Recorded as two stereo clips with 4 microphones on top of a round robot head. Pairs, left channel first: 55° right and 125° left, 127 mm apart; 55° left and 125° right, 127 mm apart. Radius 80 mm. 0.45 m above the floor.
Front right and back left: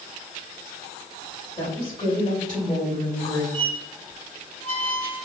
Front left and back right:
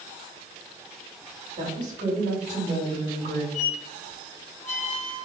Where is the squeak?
10° right, 1.9 m.